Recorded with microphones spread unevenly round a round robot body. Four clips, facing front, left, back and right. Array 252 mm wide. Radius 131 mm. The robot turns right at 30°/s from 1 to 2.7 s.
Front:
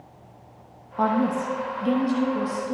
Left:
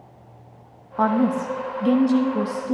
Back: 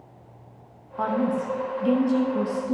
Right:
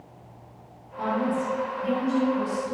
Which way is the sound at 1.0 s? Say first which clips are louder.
Left 6 dB, front 2 dB; 65° left.